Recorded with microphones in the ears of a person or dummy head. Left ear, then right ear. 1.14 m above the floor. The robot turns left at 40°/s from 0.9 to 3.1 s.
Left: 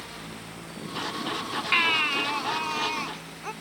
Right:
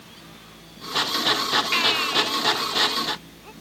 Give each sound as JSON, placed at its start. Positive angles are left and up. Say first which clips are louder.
{"t": 1.7, "sound": "a baby crying", "louder": "left 2 dB", "azimuth_deg": 175}